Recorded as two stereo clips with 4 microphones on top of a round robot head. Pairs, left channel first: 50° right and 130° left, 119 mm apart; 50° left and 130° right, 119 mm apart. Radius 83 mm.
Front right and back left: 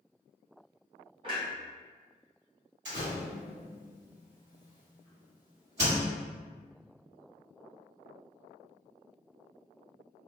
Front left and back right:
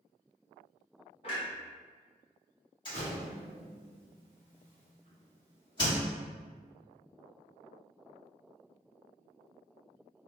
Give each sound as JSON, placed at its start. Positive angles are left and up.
{"t": 1.2, "sound": "a clunk", "azimuth_deg": 85, "distance_m": 0.9}
{"t": 2.9, "sound": "a door slam", "azimuth_deg": 100, "distance_m": 2.0}